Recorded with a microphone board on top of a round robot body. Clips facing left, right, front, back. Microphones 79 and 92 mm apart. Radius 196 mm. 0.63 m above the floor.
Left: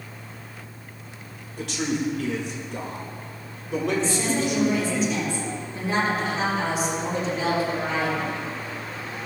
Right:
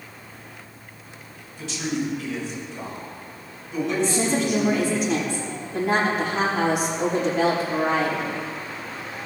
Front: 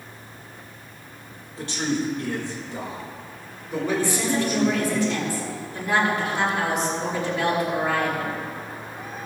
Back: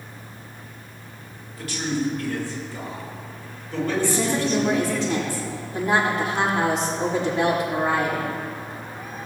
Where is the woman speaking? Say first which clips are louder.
Right 2 dB, back 1 dB; 120° right, 5.5 m.